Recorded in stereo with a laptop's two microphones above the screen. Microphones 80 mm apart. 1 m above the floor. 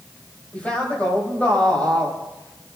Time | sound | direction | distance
0.5 | a man speaking | 20° left (ahead or behind) | 6 m